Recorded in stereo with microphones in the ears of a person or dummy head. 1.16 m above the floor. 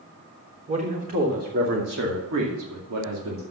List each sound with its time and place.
0.7 s a man speaking: 30° right (ahead or behind), 3 m; by 3.4 s 70° right (ahead or behind), 2.5 m